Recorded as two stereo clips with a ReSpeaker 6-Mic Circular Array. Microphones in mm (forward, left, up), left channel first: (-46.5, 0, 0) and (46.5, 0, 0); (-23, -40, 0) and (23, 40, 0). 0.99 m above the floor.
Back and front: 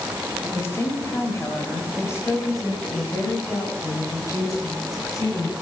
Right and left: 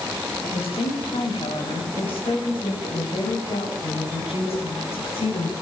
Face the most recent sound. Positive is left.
turn(degrees=-125)